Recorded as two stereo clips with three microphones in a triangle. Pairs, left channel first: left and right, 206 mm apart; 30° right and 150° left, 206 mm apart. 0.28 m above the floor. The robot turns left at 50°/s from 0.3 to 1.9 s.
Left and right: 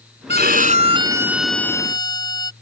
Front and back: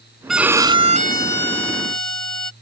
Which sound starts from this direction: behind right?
A violin, at 0.3 s.